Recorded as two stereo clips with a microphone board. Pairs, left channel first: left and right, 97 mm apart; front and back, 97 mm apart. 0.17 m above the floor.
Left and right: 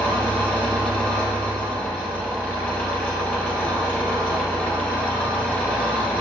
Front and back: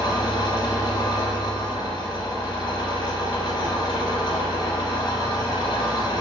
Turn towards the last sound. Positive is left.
turn(degrees=20)